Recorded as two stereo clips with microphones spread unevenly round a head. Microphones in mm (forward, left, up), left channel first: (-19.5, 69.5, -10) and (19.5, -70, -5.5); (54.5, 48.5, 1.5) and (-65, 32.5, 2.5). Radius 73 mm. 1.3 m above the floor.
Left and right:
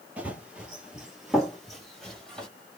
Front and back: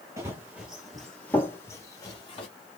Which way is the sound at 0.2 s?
140° right.